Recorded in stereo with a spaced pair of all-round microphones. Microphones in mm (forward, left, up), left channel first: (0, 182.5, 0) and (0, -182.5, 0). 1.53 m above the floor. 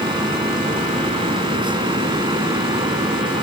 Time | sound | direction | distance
0.0 | a fan | 10° right (ahead or behind) | ?